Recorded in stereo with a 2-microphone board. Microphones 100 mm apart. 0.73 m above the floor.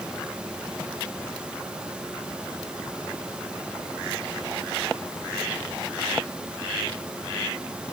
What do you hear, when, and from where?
Only background noise.